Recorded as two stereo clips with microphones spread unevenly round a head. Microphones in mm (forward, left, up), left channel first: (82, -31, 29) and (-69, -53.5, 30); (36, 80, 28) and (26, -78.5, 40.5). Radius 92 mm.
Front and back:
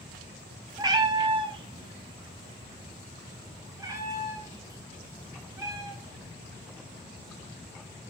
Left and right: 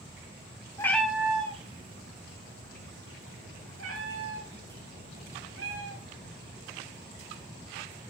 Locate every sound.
0.8 s a cat meowing: 150° left, 0.6 m; by 6.3 s 105° right, 4 m